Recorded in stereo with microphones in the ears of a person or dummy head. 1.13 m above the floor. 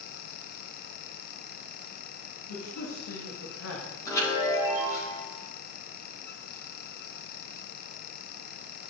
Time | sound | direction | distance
2.5 | a man speaking | 80° left | 2.0 m
4.0 | a chime | 20° left (ahead or behind) | 4.5 m